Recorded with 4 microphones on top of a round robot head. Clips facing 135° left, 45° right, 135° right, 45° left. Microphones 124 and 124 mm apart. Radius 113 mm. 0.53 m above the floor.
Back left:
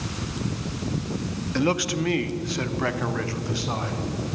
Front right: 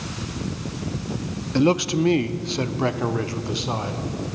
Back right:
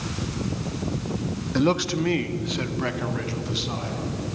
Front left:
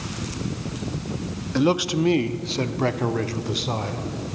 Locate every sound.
1.6 s a man speaking: 35° right, 1.0 m; by 4.4 s 20° left, 2.5 m